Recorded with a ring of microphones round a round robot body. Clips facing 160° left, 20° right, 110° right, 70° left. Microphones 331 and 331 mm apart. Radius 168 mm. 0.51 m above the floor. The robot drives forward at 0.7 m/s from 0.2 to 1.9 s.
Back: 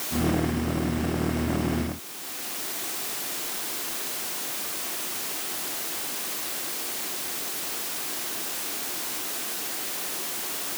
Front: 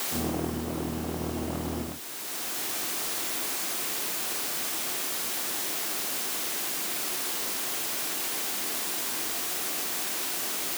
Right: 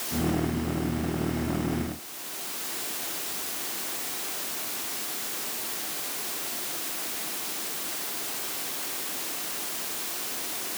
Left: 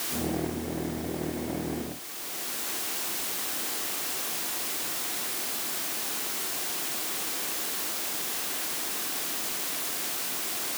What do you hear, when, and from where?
Only background noise.